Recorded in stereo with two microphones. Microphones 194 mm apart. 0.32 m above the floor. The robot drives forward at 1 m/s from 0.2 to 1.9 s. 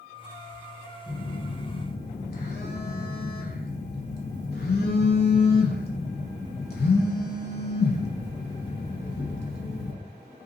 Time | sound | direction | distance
1.1 | a phone buzzing | 55° left (ahead or behind) | 0.8 m